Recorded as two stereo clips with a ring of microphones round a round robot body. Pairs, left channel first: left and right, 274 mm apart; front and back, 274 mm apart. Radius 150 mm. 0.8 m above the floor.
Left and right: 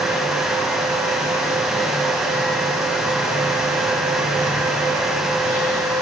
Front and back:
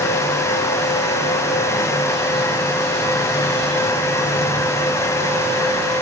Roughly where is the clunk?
I don't hear a clunk.